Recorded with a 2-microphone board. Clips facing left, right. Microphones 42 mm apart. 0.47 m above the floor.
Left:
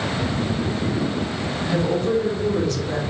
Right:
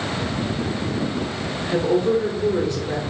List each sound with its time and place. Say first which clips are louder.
1.6 s a woman speaking: right 3 dB; 20° right (ahead or behind), 0.8 m